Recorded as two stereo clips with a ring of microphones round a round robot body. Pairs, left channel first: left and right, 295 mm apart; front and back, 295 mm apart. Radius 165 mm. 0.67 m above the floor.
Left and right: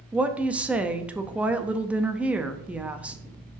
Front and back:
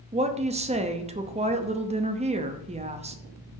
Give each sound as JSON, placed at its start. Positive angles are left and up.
{"t": 0.1, "sound": "a woman speaking", "azimuth_deg": -170, "distance_m": 0.6}